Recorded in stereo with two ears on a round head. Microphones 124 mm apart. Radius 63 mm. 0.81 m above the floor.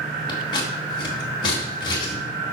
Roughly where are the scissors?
Left.